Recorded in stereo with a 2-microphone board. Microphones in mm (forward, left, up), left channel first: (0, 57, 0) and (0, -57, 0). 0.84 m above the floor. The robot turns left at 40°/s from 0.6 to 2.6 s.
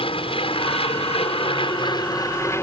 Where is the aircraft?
105° left; by 2.6 s 25° left.